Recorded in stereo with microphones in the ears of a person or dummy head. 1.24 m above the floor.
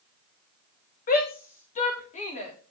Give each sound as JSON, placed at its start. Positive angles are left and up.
{"t": 1.1, "sound": "a shout", "side_deg": 45, "distance_m": 2.5}